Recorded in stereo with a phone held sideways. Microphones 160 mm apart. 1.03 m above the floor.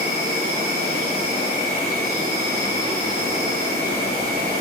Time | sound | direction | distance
0.0 | an insect | 70° right (ahead or behind) | 3 m